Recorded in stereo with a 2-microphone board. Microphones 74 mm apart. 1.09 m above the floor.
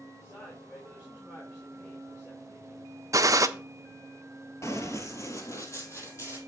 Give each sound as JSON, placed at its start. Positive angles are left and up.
{"t": 0.2, "sound": "a man speaking", "side_deg": 35, "distance_m": 3.5}
{"t": 3.1, "sound": "a gunshot", "side_deg": -50, "distance_m": 0.6}
{"t": 4.6, "sound": "running footsteps", "side_deg": 40, "distance_m": 1.3}